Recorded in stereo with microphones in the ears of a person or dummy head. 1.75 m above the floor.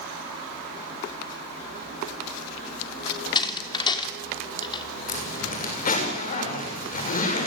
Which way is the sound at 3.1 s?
25° left (ahead or behind).